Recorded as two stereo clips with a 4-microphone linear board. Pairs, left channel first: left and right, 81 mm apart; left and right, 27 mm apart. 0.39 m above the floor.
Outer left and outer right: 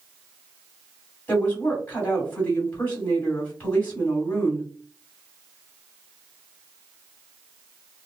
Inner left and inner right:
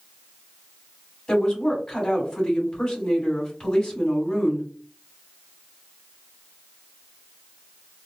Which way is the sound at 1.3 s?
20° left (ahead or behind).